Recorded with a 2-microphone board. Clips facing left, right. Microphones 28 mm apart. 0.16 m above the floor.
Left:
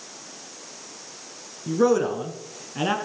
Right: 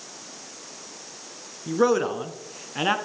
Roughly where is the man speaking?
Centre.